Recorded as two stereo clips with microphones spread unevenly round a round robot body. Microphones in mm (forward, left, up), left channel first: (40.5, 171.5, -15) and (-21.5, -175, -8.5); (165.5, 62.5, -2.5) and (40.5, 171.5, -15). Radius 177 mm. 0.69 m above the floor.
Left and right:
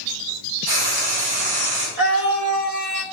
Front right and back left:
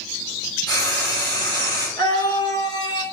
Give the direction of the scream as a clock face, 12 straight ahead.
4 o'clock.